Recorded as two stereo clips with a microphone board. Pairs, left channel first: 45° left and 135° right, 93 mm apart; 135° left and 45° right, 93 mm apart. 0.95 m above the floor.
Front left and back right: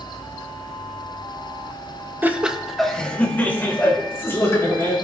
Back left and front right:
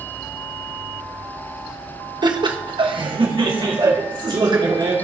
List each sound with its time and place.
2.2 s laughter: 70° right, 1.0 m; by 4.9 s 15° right, 3 m